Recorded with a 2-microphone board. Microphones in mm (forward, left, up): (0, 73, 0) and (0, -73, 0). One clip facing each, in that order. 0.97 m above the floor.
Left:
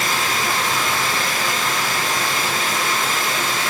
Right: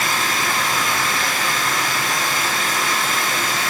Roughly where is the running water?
Left.